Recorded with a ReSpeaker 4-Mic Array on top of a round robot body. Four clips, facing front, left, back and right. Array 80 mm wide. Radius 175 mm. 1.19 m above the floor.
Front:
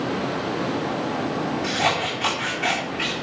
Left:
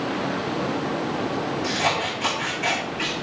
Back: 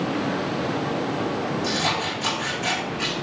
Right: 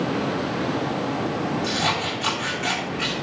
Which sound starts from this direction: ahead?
Scissors, at 1.6 s.